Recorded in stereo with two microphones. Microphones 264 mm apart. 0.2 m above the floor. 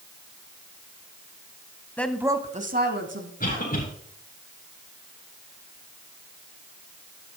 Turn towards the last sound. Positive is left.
turn(degrees=35)  # may be behind; listen again after turning